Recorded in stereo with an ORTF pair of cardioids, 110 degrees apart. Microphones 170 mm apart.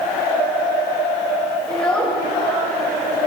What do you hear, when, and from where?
1.7 s a child speaking: 5° left, 5 m